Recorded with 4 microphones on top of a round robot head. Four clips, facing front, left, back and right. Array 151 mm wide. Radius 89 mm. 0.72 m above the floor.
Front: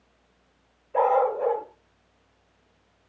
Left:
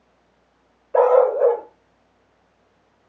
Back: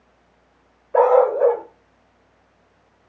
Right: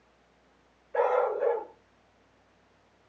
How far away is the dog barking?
About 1.2 m.